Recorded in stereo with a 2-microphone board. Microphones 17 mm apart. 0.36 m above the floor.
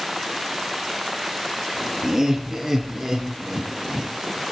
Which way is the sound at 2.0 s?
25° right (ahead or behind).